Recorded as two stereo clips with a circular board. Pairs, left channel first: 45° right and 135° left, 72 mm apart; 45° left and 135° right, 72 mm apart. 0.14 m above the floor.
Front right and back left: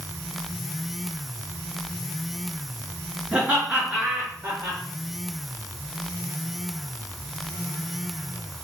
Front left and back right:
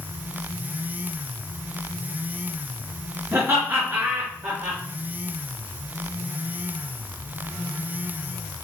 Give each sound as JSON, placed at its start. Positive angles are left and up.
{"t": 3.3, "sound": "laughter", "azimuth_deg": -160, "distance_m": 1.9}